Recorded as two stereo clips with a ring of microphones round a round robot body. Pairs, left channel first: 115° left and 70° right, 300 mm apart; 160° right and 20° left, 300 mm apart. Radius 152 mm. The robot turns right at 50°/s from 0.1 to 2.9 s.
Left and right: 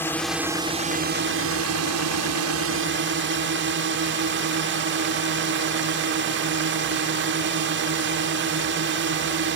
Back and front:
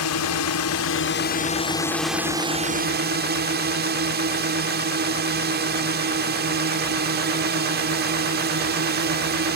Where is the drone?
165° right; by 9.6 s 25° right.